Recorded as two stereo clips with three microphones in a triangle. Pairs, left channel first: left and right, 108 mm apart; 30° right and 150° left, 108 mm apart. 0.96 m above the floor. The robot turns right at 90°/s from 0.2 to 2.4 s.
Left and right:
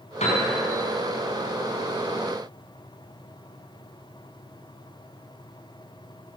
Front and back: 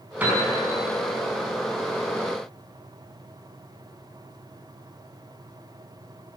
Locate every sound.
0.2 s a piano: 70° left, 5 m; by 0.4 s 95° left, 5 m